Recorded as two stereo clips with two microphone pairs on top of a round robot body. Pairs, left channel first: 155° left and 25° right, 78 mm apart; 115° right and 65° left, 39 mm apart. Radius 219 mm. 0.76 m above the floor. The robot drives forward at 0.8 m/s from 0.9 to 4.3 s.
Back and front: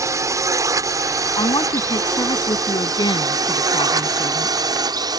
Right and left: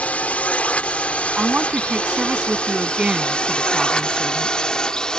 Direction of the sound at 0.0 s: 70° right.